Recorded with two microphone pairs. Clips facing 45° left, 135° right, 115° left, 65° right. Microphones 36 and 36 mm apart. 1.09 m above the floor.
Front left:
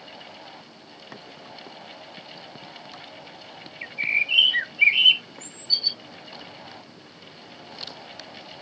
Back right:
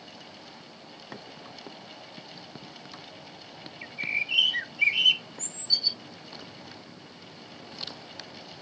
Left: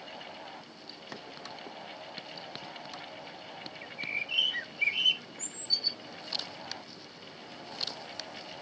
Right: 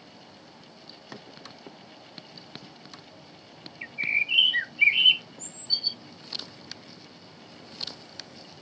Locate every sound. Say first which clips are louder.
3.8 s a bird: front left 6 dB, right 9 dB; 15° right